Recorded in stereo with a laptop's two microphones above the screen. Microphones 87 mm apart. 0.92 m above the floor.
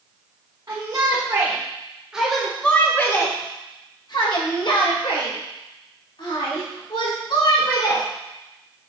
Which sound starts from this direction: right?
A shout, at 0.7 s.